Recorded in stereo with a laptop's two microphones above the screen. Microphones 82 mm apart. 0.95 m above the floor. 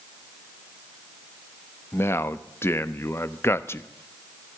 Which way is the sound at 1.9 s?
30° left (ahead or behind).